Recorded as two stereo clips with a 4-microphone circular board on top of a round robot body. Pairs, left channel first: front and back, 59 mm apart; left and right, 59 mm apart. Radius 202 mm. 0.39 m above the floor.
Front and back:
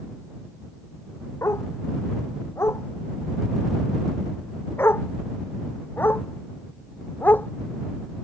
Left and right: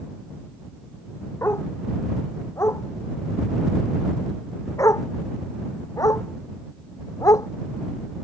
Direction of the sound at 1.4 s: 45° left.